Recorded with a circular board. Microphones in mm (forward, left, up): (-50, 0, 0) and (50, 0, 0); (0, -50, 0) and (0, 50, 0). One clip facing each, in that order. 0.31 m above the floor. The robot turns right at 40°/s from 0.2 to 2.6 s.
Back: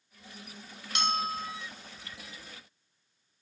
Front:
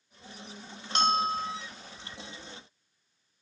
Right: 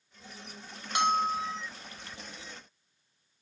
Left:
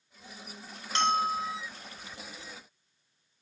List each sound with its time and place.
0.9 s a bell: 20° right, 0.7 m; by 1.6 s 5° left, 0.7 m